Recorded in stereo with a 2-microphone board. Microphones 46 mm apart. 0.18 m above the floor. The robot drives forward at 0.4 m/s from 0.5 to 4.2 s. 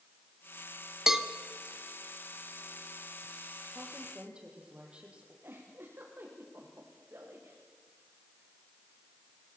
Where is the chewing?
I don't hear chewing.